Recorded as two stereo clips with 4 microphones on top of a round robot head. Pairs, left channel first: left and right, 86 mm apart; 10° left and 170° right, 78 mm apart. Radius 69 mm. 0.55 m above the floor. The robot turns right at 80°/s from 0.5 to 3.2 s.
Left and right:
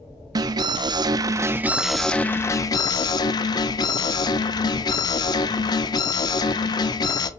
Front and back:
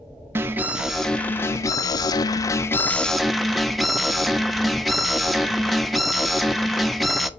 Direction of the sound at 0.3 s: 115° right.